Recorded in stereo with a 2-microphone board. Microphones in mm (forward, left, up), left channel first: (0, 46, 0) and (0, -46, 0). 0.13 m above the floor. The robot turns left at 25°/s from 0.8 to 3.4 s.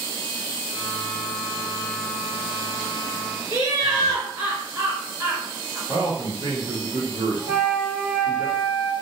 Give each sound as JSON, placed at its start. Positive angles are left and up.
{"t": 3.5, "sound": "laughter", "side_deg": -30, "distance_m": 1.4}
{"t": 5.9, "sound": "a man speaking", "side_deg": -20, "distance_m": 1.3}
{"t": 7.5, "sound": "a flute", "side_deg": -15, "distance_m": 0.6}